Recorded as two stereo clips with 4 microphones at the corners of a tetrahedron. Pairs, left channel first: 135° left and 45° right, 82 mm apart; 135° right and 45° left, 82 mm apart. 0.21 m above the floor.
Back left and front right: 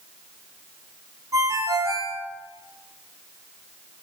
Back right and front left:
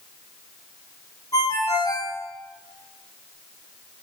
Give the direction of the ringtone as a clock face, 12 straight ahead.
3 o'clock.